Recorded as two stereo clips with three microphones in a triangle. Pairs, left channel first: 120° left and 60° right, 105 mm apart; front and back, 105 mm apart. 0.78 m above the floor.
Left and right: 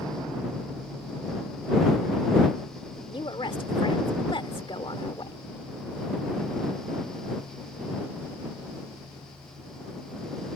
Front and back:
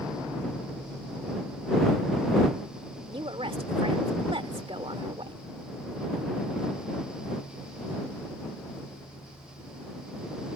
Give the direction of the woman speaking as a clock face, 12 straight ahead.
7 o'clock.